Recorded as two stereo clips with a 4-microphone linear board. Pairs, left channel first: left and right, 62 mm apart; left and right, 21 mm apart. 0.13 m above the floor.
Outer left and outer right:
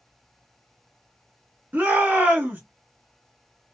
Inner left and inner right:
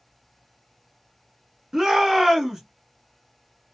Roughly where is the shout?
Right.